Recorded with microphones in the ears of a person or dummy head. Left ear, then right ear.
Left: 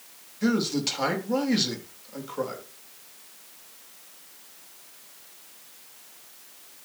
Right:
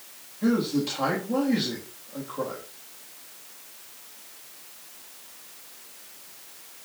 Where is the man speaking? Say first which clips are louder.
Even; 60° left (ahead or behind), 3.5 m.